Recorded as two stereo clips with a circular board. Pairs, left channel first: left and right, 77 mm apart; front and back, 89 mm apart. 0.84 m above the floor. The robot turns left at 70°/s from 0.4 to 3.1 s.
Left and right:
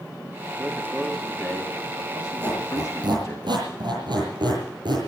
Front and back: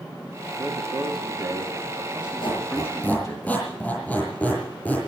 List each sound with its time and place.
0.6 s a man speaking: 140° right, 1.9 m; by 3.4 s 45° left, 1.9 m
2.4 s a squeak: 20° right, 7.5 m; by 5.1 s 70° right, 7.5 m